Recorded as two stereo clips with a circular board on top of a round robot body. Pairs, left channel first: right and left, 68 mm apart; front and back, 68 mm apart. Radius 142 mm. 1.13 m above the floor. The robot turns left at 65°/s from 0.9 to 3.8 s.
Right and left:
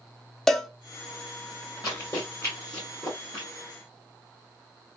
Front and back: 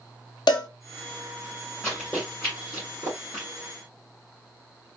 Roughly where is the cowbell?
Ahead.